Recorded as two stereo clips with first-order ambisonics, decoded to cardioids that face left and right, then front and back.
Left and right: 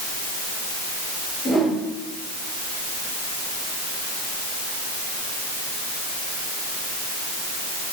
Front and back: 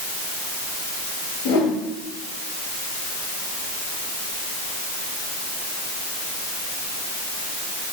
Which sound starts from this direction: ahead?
A whoosh, at 1.4 s.